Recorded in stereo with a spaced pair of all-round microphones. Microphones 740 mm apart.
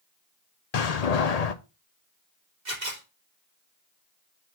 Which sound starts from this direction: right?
A camera shutter, at 2.6 s.